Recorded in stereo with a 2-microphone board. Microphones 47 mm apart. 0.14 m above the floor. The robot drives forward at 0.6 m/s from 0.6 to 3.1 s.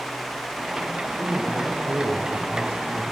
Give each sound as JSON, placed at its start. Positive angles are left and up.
{"t": 1.2, "sound": "a man speaking", "side_deg": -50, "distance_m": 2.5}